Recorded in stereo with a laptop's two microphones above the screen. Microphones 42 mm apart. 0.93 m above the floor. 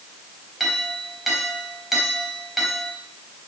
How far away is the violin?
I don't hear a violin.